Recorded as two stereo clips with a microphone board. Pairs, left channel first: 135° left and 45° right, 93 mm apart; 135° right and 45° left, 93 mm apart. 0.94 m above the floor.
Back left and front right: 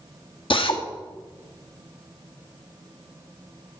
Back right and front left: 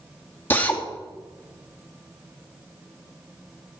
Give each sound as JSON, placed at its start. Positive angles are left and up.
{"t": 0.5, "sound": "a drill", "azimuth_deg": 155, "distance_m": 1.3}